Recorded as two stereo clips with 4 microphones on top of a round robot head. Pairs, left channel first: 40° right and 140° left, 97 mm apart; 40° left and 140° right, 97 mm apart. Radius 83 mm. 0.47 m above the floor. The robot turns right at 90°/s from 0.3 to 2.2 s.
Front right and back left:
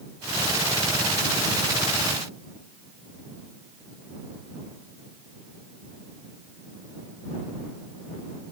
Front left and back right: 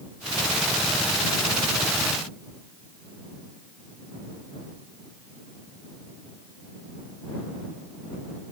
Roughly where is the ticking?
I don't hear ticking.